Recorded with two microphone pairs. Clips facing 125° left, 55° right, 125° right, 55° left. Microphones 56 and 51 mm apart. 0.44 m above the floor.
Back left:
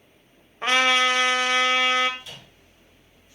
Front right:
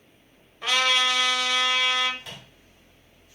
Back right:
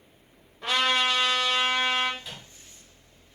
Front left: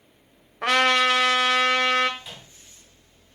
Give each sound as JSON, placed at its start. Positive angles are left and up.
{"t": 0.6, "sound": "a trumpet", "azimuth_deg": 75, "distance_m": 0.6}
{"t": 2.2, "sound": "a microwave", "azimuth_deg": -25, "distance_m": 2.5}